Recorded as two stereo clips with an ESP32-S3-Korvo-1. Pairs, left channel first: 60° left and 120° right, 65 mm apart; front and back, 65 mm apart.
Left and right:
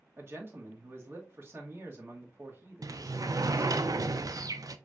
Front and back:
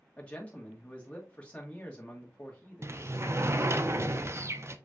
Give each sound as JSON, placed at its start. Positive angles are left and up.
{"t": 0.2, "sound": "a man speaking", "azimuth_deg": -70, "distance_m": 1.7}
{"t": 2.8, "sound": "a sliding door", "azimuth_deg": -135, "distance_m": 0.5}